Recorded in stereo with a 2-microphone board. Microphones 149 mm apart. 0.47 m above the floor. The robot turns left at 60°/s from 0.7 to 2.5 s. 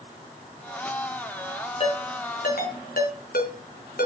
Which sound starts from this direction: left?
A ringtone, at 1.8 s.